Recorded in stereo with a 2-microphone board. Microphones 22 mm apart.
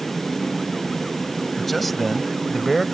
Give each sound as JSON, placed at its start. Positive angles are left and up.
{"t": 1.6, "sound": "a man speaking", "side_deg": 10}